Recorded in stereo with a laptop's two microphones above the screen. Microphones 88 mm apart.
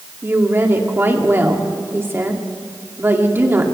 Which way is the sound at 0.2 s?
25° right (ahead or behind).